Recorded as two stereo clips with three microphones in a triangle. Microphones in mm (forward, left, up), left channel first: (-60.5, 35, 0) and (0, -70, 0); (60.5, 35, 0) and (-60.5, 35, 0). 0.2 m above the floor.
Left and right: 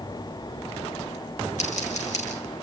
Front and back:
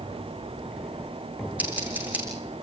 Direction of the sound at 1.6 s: 100° left.